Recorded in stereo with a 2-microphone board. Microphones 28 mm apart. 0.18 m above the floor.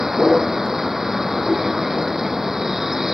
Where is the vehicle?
15° right (ahead or behind).